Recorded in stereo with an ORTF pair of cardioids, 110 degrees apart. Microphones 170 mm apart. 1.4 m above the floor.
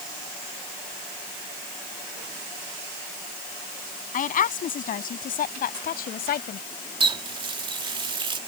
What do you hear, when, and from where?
4.1 s a woman speaking: 50° left; by 6.6 s 65° left
7.0 s a running tap: 30° right